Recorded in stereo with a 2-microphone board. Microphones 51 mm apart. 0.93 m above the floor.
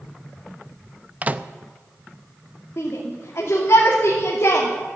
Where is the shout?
70° left (ahead or behind), 2.5 m.